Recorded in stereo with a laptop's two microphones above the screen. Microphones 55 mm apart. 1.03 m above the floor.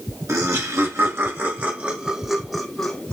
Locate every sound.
0.3 s laughter: 60° right (ahead or behind), 1.6 m; by 3.1 s 15° left (ahead or behind), 1.3 m